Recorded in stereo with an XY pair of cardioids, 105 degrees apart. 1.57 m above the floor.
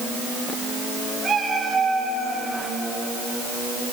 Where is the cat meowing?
35° right, 9.5 m; by 2.4 s 25° right, 8.5 m.